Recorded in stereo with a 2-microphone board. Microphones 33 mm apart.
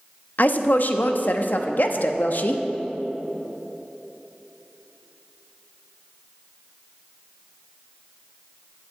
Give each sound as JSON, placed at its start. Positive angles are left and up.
{"t": 0.4, "sound": "a woman speaking", "side_deg": 60, "distance_m": 0.8}